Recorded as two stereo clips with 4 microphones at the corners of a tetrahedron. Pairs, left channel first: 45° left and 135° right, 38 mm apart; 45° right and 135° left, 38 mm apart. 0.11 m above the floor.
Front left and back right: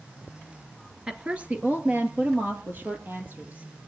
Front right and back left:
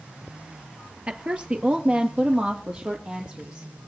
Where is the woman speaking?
175° left, 1.6 m; by 3.9 s 165° right, 4 m.